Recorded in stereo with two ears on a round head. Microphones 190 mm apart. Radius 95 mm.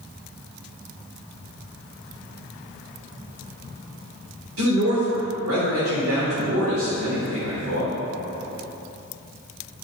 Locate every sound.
4.6 s a man speaking: 75° right (ahead or behind), 3 m